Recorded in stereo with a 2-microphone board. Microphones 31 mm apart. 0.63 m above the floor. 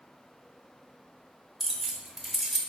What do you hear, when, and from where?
1.6 s keys jangling: 5° right (ahead or behind), 0.8 m